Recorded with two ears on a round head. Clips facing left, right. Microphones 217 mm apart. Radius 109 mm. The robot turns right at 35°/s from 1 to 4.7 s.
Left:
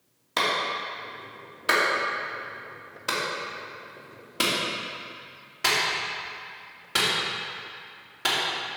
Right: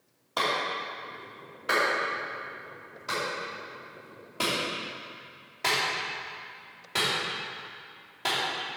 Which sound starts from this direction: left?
A clap, at 0.4 s.